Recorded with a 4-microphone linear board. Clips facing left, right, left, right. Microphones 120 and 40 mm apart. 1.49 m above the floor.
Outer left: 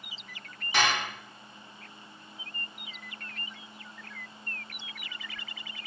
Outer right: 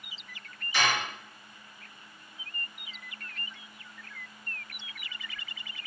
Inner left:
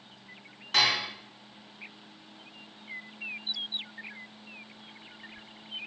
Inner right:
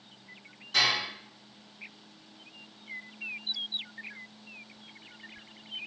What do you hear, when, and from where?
0.7 s dishes clattering: 65° left (ahead or behind), 1.4 m